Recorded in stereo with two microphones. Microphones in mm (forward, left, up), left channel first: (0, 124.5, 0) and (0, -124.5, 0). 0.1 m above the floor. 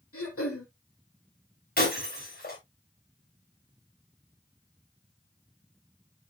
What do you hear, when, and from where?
0.1 s throat clearing: 65° left (ahead or behind), 3 m
1.8 s breaking glass: 35° left (ahead or behind), 6 m